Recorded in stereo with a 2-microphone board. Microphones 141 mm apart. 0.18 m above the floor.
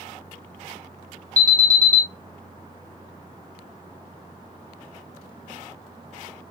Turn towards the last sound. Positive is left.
turn(degrees=-25)  # may be behind; listen again after turning